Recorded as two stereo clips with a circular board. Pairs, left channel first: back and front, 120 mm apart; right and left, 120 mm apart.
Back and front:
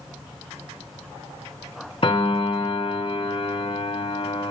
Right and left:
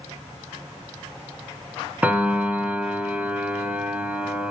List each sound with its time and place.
2.0 s a piano: 165° left, 1.4 m